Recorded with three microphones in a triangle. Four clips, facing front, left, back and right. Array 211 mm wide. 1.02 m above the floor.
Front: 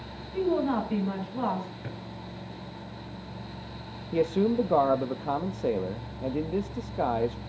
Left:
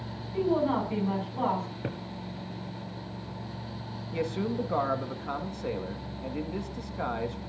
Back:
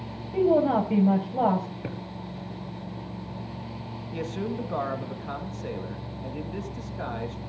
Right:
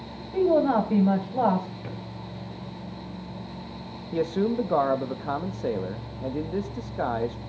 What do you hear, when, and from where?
0.3 s a woman speaking: 135° right, 6.5 m
1.8 s a drawer: 130° left, 4.5 m
4.1 s a man speaking: 30° right, 1.8 m